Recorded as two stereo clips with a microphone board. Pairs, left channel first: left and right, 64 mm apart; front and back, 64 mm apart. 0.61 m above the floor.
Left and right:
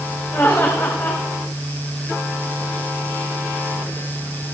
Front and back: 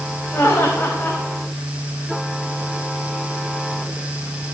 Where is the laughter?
45° left, 3 m.